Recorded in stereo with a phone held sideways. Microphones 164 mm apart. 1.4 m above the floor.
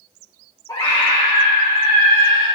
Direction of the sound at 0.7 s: 20° left (ahead or behind).